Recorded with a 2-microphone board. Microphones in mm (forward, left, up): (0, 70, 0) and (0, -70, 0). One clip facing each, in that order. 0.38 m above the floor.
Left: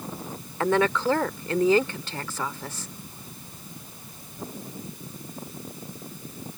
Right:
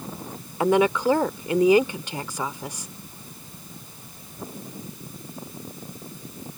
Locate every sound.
0.6 s a woman speaking: 15° right (ahead or behind)